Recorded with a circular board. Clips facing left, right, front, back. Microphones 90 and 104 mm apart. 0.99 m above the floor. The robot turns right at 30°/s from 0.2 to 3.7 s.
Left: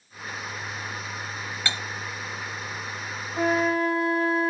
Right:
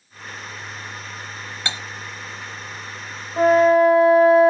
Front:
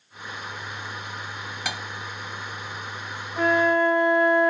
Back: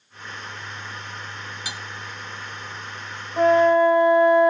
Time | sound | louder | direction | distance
1.6 | cutlery clinking | right 1 dB, front 7 dB | 20° right | 0.9 m
3.4 | a flute | right 10 dB, back 5 dB | 120° right | 1.7 m